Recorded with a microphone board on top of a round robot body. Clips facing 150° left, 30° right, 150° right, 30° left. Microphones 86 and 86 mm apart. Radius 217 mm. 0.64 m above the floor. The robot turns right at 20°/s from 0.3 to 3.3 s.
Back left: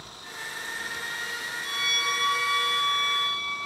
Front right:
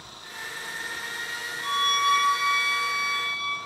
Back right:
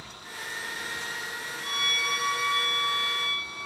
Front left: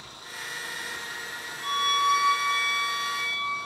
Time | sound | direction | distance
1.6 | a violin | 10° right | 3 m